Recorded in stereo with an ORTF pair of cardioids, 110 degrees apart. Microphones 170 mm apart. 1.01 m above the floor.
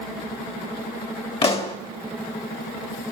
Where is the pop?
35° left, 1.8 m.